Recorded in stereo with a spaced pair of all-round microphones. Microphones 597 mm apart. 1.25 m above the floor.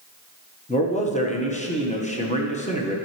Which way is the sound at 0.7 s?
10° left (ahead or behind).